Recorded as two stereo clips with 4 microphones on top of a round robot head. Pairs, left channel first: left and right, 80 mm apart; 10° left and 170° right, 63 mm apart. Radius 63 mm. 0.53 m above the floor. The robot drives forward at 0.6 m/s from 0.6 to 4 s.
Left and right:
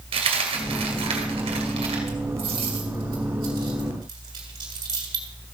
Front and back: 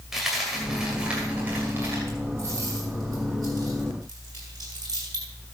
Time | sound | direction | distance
0.1 | a dropped coin | 85° right | 2.0 m